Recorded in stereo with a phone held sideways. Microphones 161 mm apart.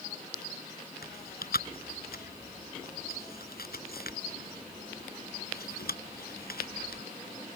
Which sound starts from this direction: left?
Chewing, at 1.0 s.